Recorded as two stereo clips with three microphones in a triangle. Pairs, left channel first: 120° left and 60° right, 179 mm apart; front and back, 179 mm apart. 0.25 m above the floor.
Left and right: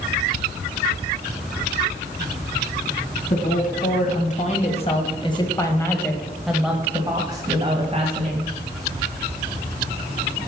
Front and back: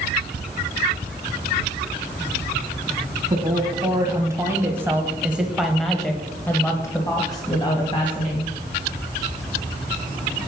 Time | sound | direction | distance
3.3 | a woman speaking | 115° left | 2.5 m